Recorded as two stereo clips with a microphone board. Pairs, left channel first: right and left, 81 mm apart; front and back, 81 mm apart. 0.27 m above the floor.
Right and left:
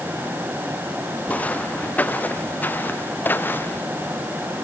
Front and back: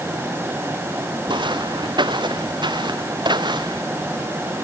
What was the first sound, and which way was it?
Footsteps, 160° right.